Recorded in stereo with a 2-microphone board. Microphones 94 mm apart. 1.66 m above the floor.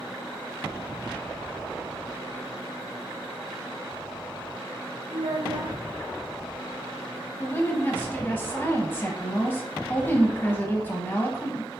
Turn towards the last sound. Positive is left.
turn(degrees=20)  # may be behind; listen again after turning